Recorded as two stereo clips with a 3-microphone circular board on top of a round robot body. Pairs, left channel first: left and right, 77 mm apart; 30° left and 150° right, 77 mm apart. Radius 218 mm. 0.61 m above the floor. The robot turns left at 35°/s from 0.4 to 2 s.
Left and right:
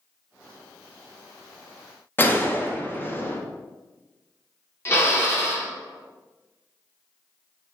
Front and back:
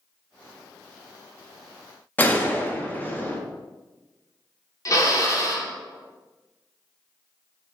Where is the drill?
45° left, 1.2 m.